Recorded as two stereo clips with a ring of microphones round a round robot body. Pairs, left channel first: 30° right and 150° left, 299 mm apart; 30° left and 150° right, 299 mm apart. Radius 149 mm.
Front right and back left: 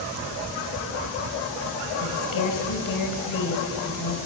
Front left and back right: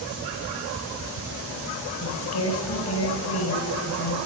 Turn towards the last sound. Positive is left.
turn(degrees=-10)